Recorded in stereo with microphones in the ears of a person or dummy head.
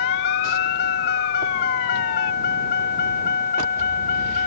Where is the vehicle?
60° left (ahead or behind); by 4.5 s 45° left (ahead or behind).